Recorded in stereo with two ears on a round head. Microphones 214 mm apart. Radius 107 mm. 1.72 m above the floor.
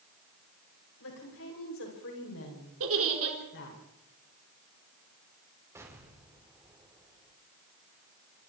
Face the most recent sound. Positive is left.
turn(degrees=-10)  # may be behind; listen again after turning